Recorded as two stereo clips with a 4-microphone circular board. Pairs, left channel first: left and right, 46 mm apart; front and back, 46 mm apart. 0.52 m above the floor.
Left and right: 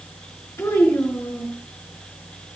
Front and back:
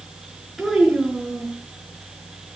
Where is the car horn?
No car horn in this recording.